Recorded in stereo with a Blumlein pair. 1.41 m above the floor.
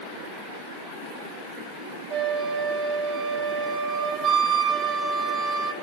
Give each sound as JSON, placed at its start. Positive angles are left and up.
{"t": 2.1, "sound": "a flute", "azimuth_deg": -30, "distance_m": 1.8}